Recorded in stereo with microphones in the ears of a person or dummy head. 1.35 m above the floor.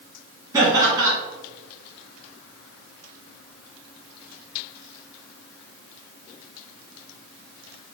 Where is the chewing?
No chewing in this recording.